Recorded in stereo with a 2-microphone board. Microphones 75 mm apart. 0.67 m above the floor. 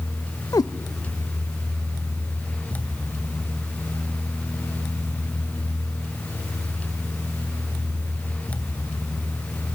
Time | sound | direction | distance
0.5 | a cat meowing | 60° left (ahead or behind) | 0.5 m